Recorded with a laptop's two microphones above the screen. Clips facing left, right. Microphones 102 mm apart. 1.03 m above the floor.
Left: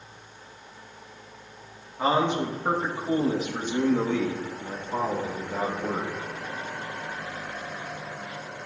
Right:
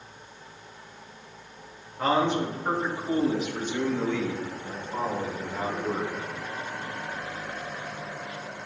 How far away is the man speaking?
About 1.7 m.